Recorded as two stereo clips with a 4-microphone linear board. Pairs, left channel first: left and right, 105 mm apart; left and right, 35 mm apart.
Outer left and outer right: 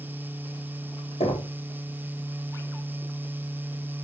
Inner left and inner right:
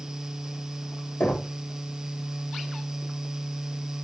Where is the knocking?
75° left (ahead or behind), 4.5 m.